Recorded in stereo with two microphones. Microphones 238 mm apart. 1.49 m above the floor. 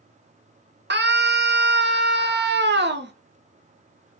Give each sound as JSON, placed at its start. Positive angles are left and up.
{"t": 0.9, "sound": "a scream", "side_deg": -50, "distance_m": 0.6}